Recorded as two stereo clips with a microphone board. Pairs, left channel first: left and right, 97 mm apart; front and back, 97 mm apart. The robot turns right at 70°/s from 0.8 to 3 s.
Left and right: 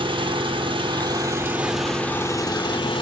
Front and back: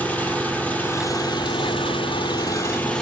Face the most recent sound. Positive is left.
turn(degrees=80)